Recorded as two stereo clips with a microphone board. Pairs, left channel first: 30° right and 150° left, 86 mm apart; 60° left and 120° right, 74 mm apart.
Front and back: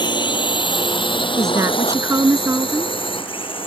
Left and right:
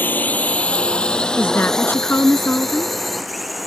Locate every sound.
0.0 s a drone: 5° right; by 3.7 s 30° right
1.4 s a woman speaking: 110° left